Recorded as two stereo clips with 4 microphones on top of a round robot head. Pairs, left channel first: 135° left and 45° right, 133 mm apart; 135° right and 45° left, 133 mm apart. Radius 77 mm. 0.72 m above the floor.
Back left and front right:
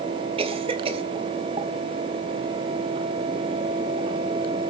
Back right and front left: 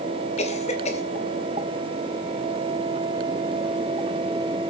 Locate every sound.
0.4 s a cough: 95° right, 2.5 m